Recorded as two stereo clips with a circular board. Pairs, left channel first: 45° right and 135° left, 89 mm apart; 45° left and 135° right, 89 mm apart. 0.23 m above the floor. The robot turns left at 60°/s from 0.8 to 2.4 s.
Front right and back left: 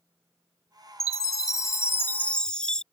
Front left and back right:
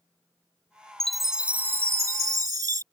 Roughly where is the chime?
Ahead right.